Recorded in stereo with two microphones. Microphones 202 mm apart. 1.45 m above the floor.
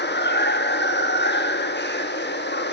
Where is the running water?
60° left (ahead or behind), 1.3 m.